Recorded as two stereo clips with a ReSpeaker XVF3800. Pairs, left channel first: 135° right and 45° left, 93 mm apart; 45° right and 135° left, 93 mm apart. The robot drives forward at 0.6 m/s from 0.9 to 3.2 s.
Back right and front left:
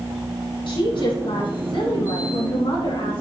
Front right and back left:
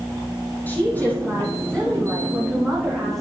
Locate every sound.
0.7 s a woman speaking: 115° right, 3.5 m; by 3.2 s 135° right, 4 m